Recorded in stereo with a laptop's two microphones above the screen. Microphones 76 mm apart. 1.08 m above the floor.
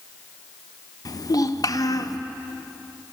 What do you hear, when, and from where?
1.1 s a child speaking: 55° left (ahead or behind), 0.5 m